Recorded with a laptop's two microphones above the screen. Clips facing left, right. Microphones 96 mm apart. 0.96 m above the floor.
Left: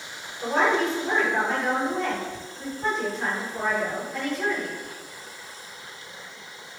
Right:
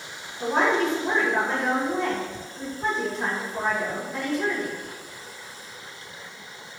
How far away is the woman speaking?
About 0.7 m.